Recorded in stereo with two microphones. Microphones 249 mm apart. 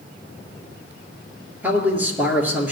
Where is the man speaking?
5° right (ahead or behind), 2.5 m.